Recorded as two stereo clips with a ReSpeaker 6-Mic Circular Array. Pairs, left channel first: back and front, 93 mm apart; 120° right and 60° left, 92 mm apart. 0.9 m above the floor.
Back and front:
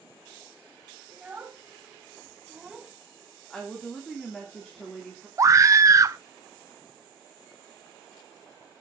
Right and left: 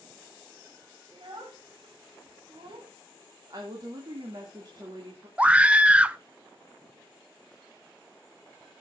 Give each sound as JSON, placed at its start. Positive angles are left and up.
{"t": 1.1, "sound": "a child speaking", "azimuth_deg": 75, "distance_m": 3.5}
{"t": 3.5, "sound": "a woman speaking", "azimuth_deg": 95, "distance_m": 2.5}
{"t": 5.4, "sound": "a scream", "azimuth_deg": -5, "distance_m": 0.6}